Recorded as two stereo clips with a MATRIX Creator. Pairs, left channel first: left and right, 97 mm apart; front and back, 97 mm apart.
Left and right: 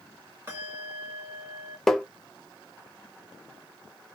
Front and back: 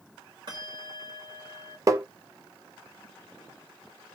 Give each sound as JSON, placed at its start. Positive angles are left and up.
{"t": 0.5, "sound": "a bell", "azimuth_deg": -150, "distance_m": 2.5}
{"t": 1.9, "sound": "tapping", "azimuth_deg": 175, "distance_m": 0.7}